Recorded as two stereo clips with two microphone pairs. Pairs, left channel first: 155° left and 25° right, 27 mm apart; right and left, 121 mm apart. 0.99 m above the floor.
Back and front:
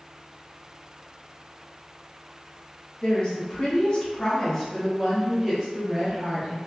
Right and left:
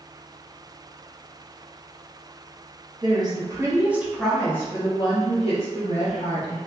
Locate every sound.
3.0 s a woman speaking: 125° left, 0.9 m; by 6.6 s 95° right, 1.4 m